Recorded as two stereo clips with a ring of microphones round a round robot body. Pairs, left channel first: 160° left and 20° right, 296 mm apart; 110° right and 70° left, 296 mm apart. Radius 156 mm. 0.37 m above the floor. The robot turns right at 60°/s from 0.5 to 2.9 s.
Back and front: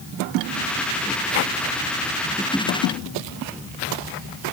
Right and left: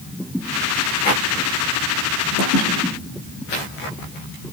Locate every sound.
Only background noise.